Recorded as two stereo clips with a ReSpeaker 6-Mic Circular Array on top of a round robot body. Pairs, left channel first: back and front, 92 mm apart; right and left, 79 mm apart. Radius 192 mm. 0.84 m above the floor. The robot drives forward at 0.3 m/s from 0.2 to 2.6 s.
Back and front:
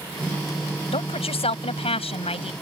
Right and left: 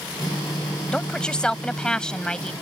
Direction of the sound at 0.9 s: 170° right.